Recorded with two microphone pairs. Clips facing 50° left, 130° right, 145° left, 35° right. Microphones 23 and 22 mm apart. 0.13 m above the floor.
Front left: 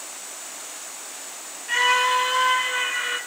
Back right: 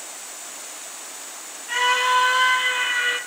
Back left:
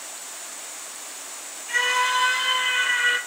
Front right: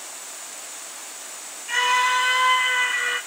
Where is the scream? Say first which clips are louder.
Even, front right 2 dB; 10° right, 1.4 m; by 3.2 s 155° right, 2.0 m.